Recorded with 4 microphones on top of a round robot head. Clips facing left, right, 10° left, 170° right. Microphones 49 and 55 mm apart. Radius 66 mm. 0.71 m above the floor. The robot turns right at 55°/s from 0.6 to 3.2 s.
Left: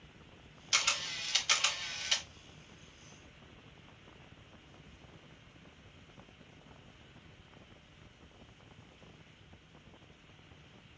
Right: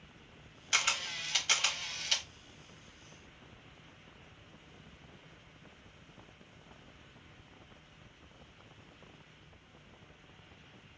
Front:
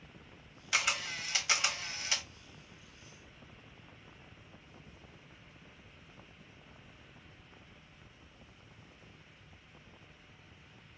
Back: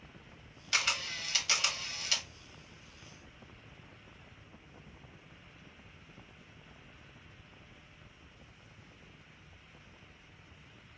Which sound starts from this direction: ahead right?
A camera shutter, at 0.7 s.